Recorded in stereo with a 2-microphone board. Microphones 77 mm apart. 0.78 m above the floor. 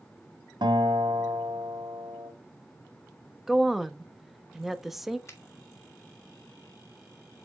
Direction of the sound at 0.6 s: 80° right.